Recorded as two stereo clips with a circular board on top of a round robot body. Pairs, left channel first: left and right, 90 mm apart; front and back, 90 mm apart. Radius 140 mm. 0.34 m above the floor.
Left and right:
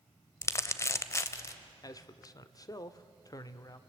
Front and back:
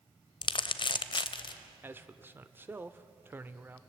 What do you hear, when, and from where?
0.4 s crumpling: 30° left, 0.8 m
1.8 s a man speaking: 120° left, 1.2 m